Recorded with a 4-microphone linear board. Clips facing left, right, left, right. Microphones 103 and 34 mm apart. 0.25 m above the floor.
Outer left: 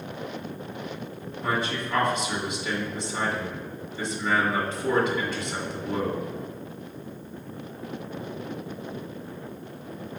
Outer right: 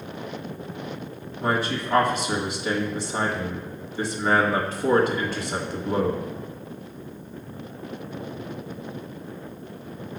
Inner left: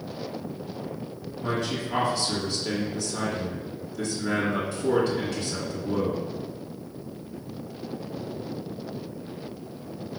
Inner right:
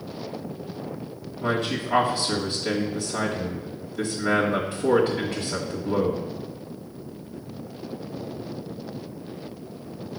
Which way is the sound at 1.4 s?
40° right (ahead or behind).